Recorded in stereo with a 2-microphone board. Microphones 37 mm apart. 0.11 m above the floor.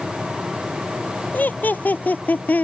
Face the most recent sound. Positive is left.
turn(degrees=55)  # may be behind; listen again after turning